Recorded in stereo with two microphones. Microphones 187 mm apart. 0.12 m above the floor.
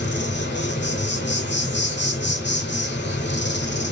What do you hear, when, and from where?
0.0 s an insect: 75° left (ahead or behind), 1.5 m